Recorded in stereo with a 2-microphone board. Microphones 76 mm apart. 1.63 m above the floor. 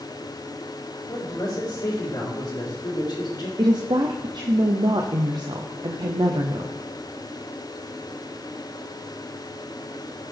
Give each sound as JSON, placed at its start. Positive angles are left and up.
{"t": 1.1, "sound": "a man speaking", "side_deg": 65, "distance_m": 3.5}
{"t": 3.6, "sound": "a woman speaking", "side_deg": -70, "distance_m": 0.7}